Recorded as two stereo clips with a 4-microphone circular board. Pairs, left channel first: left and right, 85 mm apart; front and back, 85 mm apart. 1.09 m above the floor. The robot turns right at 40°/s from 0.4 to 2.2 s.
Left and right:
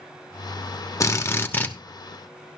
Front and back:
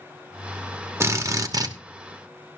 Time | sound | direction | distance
1.0 | a drill | 130° left | 0.9 m